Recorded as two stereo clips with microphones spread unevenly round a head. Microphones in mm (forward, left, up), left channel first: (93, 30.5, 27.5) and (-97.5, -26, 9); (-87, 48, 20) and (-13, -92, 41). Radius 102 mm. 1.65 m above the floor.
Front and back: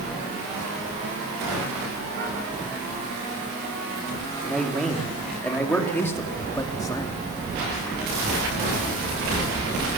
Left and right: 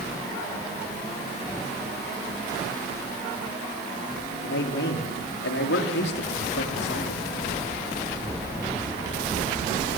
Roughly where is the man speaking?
Left.